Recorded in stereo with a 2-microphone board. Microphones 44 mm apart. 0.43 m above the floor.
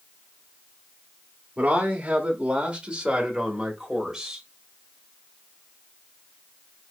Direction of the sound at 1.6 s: 30° right (ahead or behind).